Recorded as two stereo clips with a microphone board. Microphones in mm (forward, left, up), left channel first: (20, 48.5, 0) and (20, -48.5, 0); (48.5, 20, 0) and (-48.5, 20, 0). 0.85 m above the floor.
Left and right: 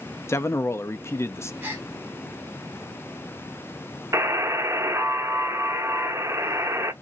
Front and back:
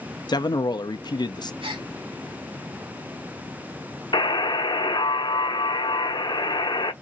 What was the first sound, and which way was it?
A man speaking, 30° left.